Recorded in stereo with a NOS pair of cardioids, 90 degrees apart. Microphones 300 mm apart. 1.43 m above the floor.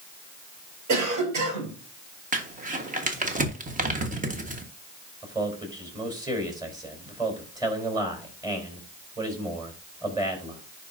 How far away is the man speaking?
About 3.5 m.